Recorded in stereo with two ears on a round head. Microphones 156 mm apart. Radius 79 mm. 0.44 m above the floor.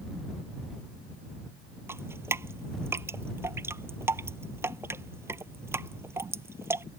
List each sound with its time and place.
1.9 s dripping: 15° right (ahead or behind)